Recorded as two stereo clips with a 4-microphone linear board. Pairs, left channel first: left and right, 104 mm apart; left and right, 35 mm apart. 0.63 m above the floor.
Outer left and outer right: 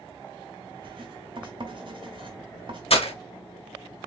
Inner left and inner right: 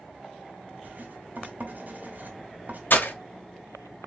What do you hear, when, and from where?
0.8 s writing: 55° right (ahead or behind), 2 m
2.9 s breaking glass: 65° left (ahead or behind), 1.1 m